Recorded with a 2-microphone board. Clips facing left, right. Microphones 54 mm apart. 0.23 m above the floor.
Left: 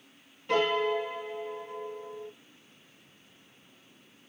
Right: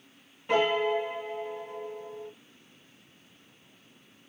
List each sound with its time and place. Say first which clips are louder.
0.5 s a piano: right 1 dB; 15° right (ahead or behind), 0.8 m